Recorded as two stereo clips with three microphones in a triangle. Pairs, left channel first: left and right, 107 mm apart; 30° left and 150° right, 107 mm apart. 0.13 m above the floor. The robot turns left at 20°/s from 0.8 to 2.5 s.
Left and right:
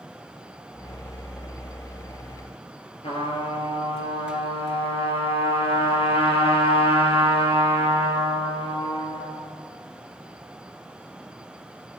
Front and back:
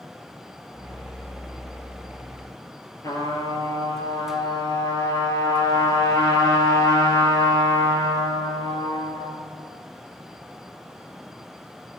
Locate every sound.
3.0 s a trumpet: 80° left, 1.6 m